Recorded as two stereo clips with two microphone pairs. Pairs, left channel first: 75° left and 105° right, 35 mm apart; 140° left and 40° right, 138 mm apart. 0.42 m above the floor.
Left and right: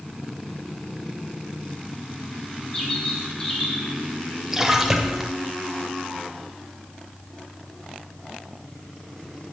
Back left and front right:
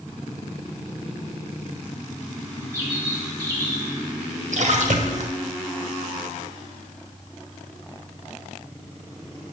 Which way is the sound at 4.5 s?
30° right.